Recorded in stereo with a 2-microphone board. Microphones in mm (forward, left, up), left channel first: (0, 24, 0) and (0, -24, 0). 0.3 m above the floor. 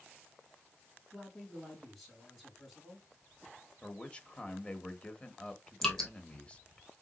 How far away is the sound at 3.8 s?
About 0.9 m.